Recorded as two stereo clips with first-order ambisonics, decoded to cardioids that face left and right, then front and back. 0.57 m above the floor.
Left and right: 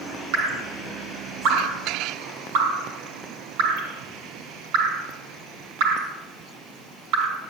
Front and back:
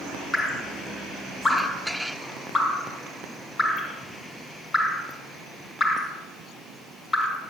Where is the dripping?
80° right, 1.4 m.